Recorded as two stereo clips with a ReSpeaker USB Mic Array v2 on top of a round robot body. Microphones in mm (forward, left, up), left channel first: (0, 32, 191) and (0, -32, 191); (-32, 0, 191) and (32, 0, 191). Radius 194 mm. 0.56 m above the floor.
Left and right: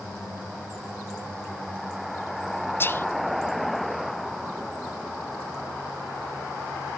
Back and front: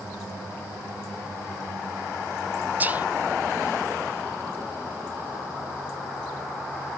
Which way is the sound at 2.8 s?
50° left.